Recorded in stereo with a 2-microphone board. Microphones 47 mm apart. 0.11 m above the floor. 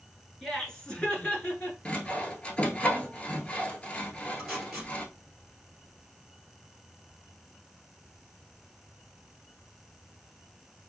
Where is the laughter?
5° left (ahead or behind), 1.4 m; by 1.8 s 35° left (ahead or behind), 1.7 m.